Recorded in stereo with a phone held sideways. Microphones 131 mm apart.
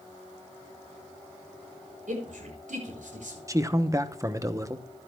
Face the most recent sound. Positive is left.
turn(degrees=-25)  # may be behind; listen again after turning